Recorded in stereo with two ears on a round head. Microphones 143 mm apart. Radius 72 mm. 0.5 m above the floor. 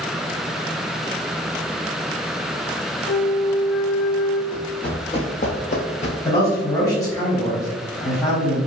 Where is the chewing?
No chewing in this recording.